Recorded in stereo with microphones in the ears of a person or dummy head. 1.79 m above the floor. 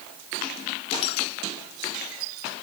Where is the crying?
I don't hear crying.